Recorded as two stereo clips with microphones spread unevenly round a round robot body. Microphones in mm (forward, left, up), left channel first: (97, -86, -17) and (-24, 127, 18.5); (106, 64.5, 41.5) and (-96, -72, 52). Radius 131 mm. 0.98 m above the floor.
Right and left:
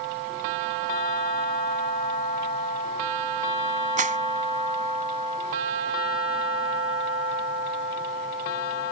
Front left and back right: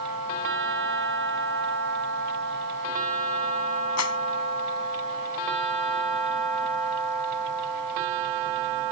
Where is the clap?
60° left.